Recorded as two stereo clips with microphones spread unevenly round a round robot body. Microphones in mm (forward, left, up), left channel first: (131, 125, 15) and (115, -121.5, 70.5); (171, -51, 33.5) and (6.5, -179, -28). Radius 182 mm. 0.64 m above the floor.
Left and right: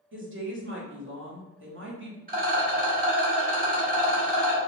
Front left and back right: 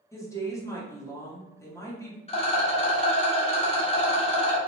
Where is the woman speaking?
50° right, 1.0 m.